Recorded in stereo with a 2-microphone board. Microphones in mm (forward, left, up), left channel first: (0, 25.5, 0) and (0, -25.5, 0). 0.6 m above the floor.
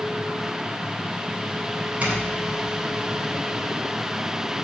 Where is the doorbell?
30° right (ahead or behind), 2.5 m.